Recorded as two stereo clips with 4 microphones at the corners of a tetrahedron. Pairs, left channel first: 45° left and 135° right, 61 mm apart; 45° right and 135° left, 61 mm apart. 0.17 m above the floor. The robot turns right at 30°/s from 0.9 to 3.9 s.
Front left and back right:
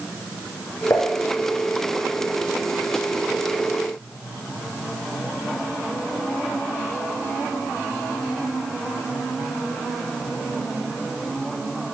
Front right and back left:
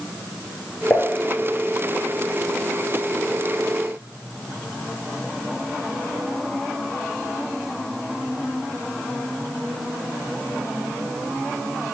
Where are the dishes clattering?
20° left, 1.7 m; by 1.1 s 25° left, 1.7 m.